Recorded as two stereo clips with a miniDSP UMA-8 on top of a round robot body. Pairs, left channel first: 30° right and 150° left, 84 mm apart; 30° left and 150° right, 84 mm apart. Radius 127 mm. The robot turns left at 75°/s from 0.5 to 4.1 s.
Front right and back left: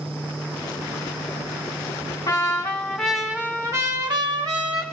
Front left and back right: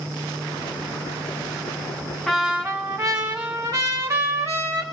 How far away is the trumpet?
About 2 m.